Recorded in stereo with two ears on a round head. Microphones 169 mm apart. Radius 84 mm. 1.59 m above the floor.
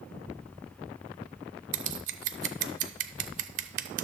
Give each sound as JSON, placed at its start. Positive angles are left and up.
{"t": 1.7, "sound": "scissors", "side_deg": -45, "distance_m": 0.5}